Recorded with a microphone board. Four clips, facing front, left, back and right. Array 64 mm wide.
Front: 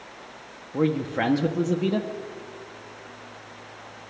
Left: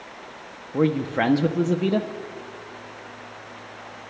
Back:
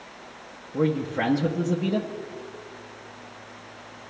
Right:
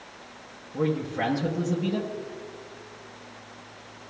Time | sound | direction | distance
0.7 | a man speaking | 75° left | 0.6 m